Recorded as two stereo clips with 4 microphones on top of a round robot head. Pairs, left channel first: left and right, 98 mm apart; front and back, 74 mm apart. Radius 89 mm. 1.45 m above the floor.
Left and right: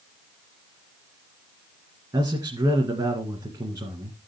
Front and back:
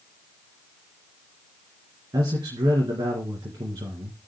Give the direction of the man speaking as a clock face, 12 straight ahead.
5 o'clock.